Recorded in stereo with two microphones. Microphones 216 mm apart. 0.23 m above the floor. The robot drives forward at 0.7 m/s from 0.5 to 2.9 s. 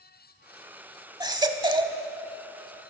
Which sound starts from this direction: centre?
A baby crying, at 1.2 s.